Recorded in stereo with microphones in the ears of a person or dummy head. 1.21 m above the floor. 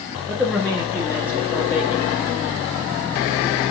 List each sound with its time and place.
0.3 s a man speaking: centre (ahead or behind), 1.3 m; by 2.1 s 25° left (ahead or behind), 2.5 m